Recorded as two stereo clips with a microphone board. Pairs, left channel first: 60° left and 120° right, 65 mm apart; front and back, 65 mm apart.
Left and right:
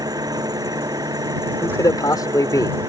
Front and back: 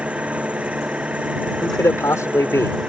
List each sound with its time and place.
0.0 s an engine running: 110° right
1.6 s a man speaking: 40° left